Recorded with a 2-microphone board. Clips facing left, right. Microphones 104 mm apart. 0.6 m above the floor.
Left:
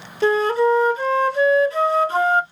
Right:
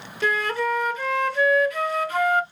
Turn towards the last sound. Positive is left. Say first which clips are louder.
# left 8 dB
turn(degrees=30)  # may be behind; listen again after turning